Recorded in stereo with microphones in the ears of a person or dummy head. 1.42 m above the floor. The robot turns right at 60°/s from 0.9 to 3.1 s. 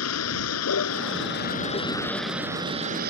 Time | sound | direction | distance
0.0 | a vehicle | 100° left | ?